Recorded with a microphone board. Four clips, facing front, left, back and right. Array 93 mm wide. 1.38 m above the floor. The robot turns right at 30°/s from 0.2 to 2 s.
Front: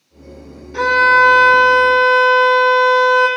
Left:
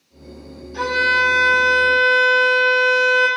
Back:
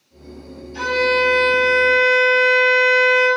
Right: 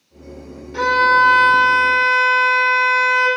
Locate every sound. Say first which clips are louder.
0.7 s a violin: right 5 dB, front 7 dB; 50° right, 4.5 m; by 3.3 s 10° right, 4.5 m